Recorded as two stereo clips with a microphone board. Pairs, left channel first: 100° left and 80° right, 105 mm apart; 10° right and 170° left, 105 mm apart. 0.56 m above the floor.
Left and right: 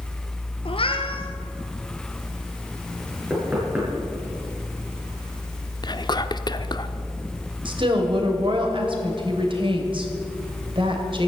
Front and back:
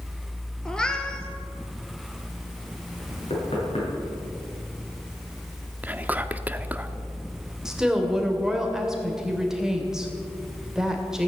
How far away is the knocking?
About 7.5 m.